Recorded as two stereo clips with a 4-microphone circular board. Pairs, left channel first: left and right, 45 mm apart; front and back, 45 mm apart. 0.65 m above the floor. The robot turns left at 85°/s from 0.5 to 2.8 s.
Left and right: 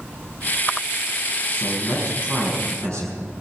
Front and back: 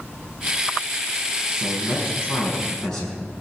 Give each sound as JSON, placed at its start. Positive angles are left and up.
{"t": 1.5, "sound": "a man speaking", "azimuth_deg": 35, "distance_m": 5.0}